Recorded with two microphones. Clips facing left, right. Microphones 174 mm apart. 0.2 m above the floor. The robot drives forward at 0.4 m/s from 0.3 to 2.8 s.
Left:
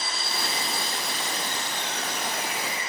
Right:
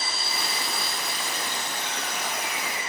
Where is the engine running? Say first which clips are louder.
Left 1 dB; 5° right (ahead or behind), 2.5 m.